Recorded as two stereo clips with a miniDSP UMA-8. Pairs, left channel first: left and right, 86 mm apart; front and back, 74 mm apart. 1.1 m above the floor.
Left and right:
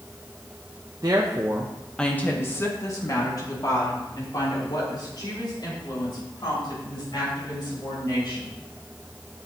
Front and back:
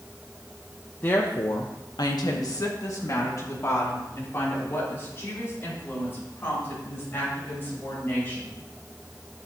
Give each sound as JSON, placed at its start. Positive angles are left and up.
{"t": 1.0, "sound": "a woman speaking", "azimuth_deg": -55, "distance_m": 1.0}